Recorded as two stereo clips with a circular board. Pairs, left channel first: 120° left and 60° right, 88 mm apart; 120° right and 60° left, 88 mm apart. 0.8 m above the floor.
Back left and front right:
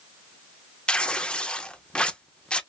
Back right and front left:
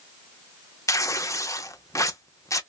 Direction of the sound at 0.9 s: 165° right.